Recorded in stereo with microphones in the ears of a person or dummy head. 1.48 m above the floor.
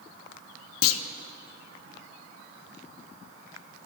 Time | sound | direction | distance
0.8 | a clunk | 85° left | 0.6 m